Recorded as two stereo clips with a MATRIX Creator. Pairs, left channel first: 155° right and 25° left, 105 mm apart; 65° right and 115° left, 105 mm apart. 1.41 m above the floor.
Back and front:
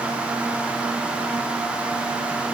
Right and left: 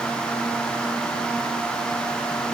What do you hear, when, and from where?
Only background noise.